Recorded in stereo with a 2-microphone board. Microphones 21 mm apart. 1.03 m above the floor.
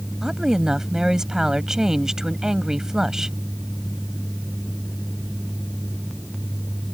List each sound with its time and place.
0.2 s a woman speaking: 25° right (ahead or behind)